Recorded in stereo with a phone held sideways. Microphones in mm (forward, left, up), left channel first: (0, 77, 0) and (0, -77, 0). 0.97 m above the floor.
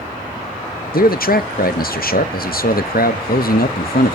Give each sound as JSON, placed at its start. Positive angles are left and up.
{"t": 0.9, "sound": "a man speaking", "side_deg": 75, "distance_m": 0.7}